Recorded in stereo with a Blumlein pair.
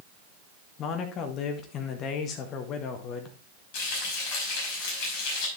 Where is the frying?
45° left, 5.5 m.